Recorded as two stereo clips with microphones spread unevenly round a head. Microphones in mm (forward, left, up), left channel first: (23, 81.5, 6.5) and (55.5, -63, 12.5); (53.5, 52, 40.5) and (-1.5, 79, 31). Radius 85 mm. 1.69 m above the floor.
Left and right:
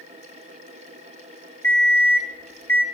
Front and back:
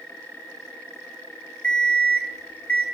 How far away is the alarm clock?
About 2.0 m.